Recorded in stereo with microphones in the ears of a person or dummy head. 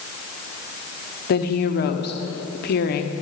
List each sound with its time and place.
1.3 s a woman speaking: 50° left (ahead or behind), 1.1 m